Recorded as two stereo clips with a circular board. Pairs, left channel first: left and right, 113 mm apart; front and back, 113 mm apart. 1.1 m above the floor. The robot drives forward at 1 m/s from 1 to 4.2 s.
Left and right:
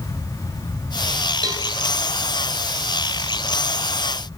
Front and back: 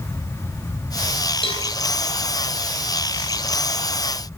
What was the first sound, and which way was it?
A cowbell, 35° right.